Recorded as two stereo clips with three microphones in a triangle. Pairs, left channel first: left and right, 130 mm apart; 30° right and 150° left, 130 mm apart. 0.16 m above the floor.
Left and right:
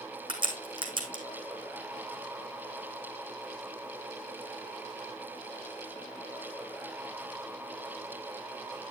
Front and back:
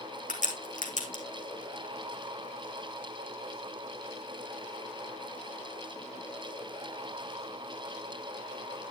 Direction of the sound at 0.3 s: 40° right.